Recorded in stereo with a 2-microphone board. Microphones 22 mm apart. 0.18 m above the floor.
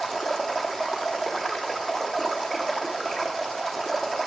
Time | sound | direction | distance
0.0 | running water | 15° left (ahead or behind) | 0.8 m